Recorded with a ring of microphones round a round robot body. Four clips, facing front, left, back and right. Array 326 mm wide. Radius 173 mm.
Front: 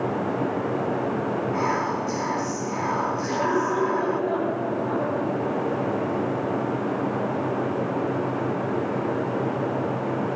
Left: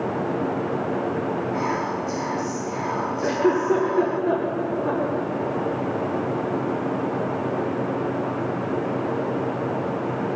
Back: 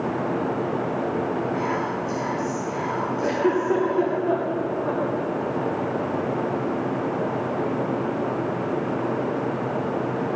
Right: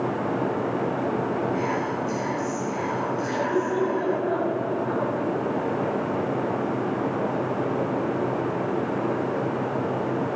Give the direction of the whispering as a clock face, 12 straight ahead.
11 o'clock.